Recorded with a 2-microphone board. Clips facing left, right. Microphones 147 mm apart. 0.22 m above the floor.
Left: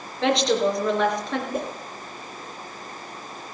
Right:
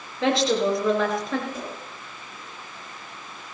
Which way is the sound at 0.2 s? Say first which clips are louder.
Left 1 dB; centre (ahead or behind).